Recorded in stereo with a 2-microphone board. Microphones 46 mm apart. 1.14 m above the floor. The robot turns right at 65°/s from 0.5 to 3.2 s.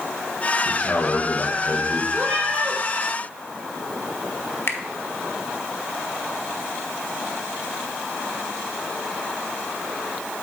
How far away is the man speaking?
About 1.3 m.